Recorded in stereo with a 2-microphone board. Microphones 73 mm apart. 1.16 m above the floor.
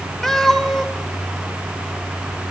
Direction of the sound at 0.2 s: 5° left (ahead or behind).